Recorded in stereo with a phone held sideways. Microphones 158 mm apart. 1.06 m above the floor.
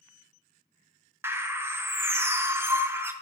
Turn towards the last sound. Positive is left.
turn(degrees=-15)  # may be behind; listen again after turning